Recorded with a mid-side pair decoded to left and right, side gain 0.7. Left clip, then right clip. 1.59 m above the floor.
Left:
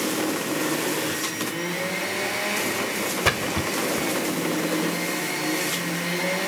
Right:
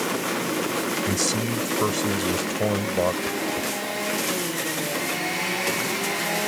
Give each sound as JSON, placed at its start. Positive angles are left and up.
{"t": 1.1, "sound": "a man speaking", "azimuth_deg": -55}
{"t": 3.2, "sound": "a splash", "azimuth_deg": 55}